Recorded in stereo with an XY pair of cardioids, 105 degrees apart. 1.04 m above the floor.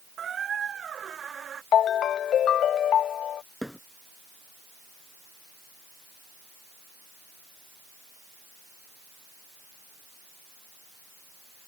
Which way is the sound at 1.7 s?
65° left.